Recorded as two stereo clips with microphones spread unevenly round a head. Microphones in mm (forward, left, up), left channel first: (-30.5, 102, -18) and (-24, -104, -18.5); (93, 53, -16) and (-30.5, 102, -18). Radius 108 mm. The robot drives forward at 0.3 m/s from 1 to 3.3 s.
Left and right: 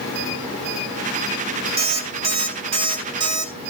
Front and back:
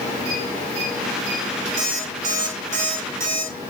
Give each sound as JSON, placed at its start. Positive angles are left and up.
{"t": 1.8, "sound": "an alarm clock", "azimuth_deg": -150, "distance_m": 1.6}